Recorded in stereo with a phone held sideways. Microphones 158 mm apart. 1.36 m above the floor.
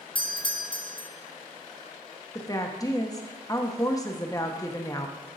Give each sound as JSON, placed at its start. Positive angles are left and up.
{"t": 0.1, "sound": "a doorbell", "side_deg": 35, "distance_m": 0.6}
{"t": 2.4, "sound": "a woman speaking", "side_deg": 25, "distance_m": 0.7}